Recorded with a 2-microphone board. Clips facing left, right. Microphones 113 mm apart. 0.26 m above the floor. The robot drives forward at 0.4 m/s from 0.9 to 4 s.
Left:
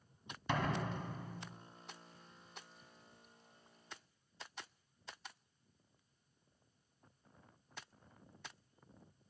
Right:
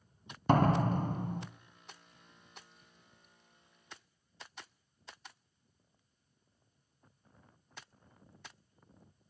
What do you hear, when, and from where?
0.5 s a door slam: 45° right (ahead or behind), 1.5 m; by 1.5 s 40° right (ahead or behind), 1.7 m